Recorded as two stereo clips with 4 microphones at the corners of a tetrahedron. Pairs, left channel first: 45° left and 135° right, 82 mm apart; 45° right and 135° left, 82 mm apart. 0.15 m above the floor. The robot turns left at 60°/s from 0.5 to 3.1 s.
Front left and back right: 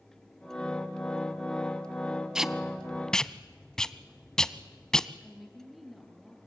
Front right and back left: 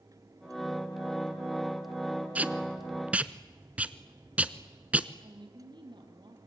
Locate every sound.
2.4 s tape being pulled: 160° left, 0.8 m; by 5.1 s 115° left, 0.8 m
5.2 s a woman speaking: 135° left, 4 m